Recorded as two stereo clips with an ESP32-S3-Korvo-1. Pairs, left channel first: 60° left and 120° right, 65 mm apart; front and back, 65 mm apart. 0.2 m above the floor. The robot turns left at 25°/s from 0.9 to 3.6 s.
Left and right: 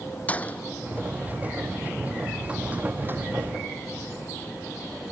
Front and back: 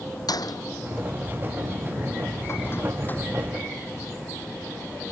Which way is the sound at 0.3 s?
5° right.